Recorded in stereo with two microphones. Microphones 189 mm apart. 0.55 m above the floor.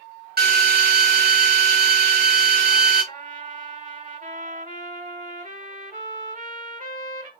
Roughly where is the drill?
Right.